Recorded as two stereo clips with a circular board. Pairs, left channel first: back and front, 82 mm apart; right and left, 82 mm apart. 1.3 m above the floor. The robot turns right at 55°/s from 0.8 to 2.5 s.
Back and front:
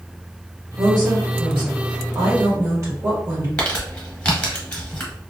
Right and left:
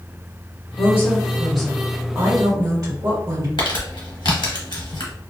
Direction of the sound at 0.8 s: 45° right.